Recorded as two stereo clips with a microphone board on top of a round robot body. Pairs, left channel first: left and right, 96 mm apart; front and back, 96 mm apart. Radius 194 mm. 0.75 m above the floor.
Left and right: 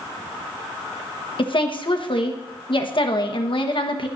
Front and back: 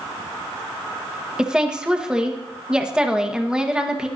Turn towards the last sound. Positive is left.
turn(degrees=100)